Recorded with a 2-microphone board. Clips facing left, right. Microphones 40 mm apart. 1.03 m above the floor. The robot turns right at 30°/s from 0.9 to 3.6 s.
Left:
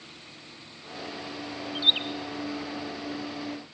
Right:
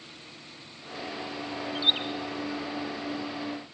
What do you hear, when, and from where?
1.8 s a bird: 20° left (ahead or behind), 1.3 m; by 2.0 s 25° left (ahead or behind), 1.3 m